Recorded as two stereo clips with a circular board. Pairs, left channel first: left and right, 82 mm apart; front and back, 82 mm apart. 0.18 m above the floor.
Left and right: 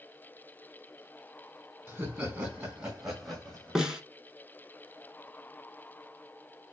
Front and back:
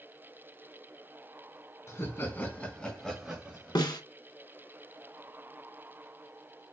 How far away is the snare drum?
About 1.1 m.